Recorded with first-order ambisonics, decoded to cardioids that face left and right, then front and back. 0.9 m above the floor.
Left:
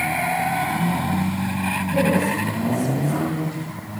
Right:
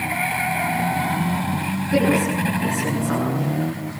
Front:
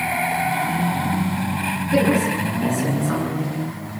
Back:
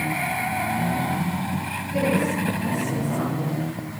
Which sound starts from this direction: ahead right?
A woman speaking, at 1.9 s.